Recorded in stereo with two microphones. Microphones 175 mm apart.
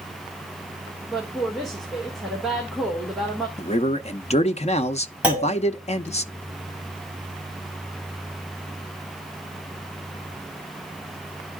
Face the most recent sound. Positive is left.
turn(degrees=-5)  # may be behind; listen again after turning